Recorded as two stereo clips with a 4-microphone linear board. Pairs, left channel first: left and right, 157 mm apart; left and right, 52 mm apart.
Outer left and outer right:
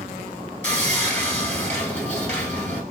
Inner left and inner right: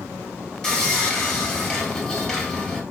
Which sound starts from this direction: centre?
Sawing, at 0.6 s.